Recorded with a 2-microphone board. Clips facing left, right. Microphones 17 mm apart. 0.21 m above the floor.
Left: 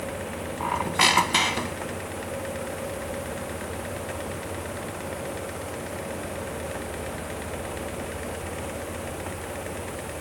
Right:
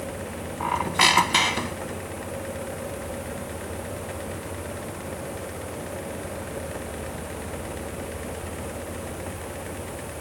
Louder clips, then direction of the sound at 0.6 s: Right 1 dB; 5° right (ahead or behind).